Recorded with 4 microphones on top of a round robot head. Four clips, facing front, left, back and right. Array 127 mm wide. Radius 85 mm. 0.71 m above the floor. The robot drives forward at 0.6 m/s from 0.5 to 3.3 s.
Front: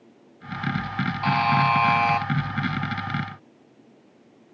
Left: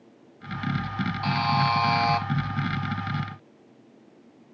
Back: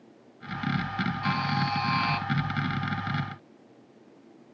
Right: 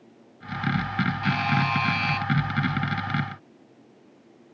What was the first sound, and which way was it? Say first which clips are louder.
A buzzer: left 4 dB, front 10 dB; 20° left.